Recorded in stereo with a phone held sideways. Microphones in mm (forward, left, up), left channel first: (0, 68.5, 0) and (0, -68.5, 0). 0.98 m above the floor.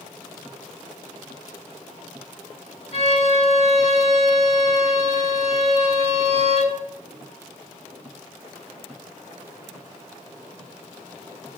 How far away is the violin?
About 7 m.